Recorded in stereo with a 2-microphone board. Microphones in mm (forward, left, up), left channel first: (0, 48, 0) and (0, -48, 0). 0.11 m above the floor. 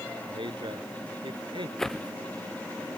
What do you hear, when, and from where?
0.3 s a man speaking: 60° right (ahead or behind)
1.8 s a whoosh: 5° left (ahead or behind)